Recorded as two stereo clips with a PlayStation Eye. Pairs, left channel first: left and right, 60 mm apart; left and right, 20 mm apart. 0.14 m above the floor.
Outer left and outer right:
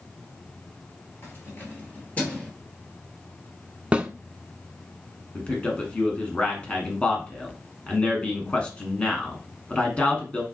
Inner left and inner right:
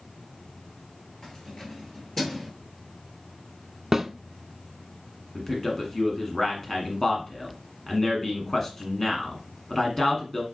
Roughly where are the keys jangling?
Left.